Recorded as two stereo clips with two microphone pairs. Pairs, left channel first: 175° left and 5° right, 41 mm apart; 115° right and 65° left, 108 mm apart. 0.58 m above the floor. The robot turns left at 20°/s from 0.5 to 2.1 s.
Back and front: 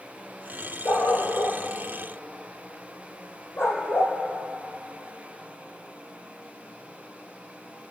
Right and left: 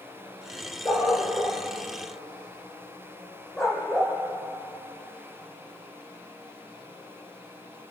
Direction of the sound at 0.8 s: 175° right.